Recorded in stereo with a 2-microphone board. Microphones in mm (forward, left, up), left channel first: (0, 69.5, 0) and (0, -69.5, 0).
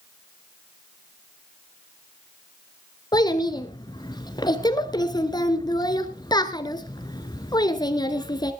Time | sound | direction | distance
3.1 | a child speaking | 30° left (ahead or behind) | 1.6 m